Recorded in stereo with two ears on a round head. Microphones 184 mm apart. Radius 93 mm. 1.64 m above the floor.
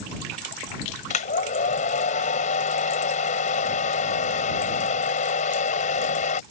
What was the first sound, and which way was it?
A hair dryer, 35° left (ahead or behind).